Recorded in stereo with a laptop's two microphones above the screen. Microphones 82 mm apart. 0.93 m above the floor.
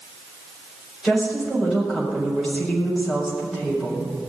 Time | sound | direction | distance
1.0 | a woman speaking | 5° right (ahead or behind) | 4.5 m